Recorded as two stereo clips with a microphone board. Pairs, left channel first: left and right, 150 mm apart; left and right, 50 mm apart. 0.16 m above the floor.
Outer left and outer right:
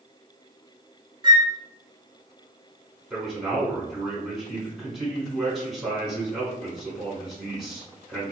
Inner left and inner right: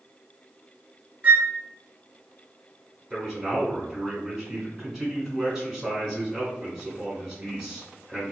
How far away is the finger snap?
I don't hear a finger snap.